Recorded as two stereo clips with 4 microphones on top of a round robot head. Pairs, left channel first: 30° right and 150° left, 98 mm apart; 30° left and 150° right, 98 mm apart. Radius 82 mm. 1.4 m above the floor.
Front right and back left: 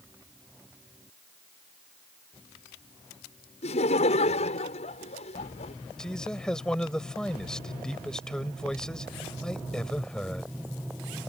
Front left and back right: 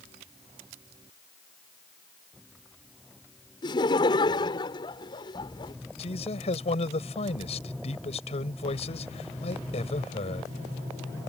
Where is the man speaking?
50° left.